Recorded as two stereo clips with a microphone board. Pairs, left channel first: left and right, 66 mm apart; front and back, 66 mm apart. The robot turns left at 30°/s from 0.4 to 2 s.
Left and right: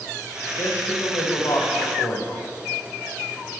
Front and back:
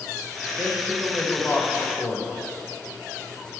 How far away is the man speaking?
About 1.7 m.